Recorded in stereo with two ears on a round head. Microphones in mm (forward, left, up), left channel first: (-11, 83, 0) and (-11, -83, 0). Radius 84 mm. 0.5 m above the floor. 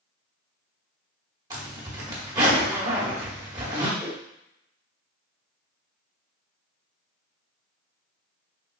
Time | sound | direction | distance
1.5 | a zipper | 20° right (ahead or behind) | 1.1 m
4.0 | a whoosh | 15° left (ahead or behind) | 1.2 m